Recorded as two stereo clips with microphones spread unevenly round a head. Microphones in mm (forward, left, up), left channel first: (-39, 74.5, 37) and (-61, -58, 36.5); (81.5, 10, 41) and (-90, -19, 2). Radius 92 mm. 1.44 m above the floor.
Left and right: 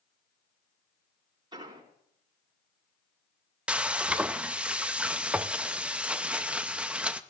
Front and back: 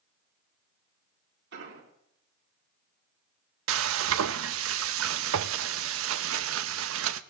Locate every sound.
1.5 s an explosion: 155° right, 5 m
3.7 s frying: straight behind, 0.6 m